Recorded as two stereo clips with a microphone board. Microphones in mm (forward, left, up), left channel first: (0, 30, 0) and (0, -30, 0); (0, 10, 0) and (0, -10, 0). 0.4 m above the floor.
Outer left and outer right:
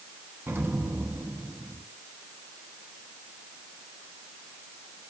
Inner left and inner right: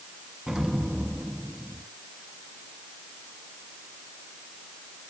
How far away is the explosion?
About 0.9 m.